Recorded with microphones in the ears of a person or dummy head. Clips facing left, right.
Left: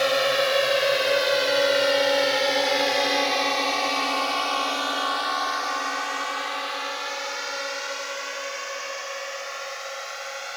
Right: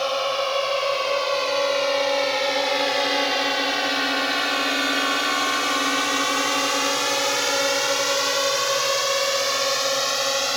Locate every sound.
0.0 s a drone: 25° left (ahead or behind); by 10.6 s 90° right